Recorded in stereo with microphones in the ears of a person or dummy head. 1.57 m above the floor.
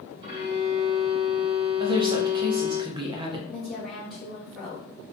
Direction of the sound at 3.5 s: 5° right (ahead or behind).